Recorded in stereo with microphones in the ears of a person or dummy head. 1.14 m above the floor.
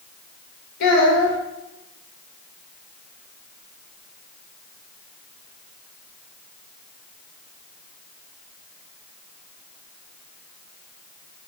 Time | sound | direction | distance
0.8 | a child speaking | 50° left (ahead or behind) | 0.9 m